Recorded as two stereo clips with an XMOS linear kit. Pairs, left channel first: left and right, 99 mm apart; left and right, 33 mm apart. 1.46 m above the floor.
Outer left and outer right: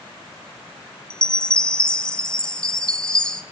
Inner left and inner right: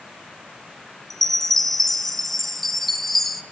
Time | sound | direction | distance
1.1 | a chime | 10° left (ahead or behind) | 1.5 m